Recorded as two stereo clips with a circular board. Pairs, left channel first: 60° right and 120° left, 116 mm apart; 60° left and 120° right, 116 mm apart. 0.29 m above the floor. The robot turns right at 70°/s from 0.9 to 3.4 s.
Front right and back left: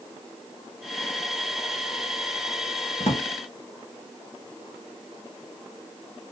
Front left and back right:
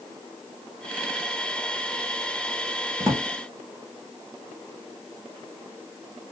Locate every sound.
3.0 s a drawer: 65° right, 2.5 m; by 3.3 s 45° right, 2.5 m